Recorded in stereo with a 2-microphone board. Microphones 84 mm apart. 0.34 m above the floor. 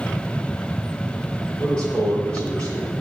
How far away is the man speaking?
About 7 m.